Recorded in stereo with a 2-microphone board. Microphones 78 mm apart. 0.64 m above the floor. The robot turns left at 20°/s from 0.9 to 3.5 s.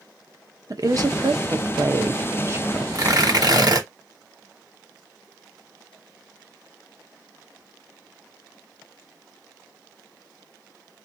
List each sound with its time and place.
0.7 s a woman speaking: 50° right (ahead or behind), 0.8 m; by 2.9 s 30° right (ahead or behind), 0.8 m
3.0 s tearing paper: 50° right (ahead or behind), 1.2 m; by 3.9 s 60° right (ahead or behind), 1.2 m